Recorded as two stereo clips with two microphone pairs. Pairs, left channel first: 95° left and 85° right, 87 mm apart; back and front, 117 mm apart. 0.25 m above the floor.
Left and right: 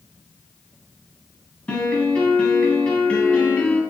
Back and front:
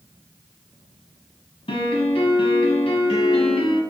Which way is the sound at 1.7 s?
170° left.